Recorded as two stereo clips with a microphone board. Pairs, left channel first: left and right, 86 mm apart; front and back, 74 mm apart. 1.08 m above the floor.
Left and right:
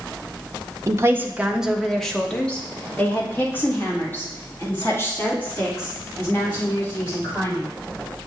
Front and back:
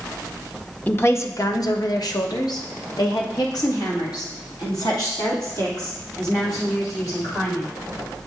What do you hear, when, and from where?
0.9 s a woman speaking: 55° right, 0.5 m; by 7.7 s 30° left, 3.5 m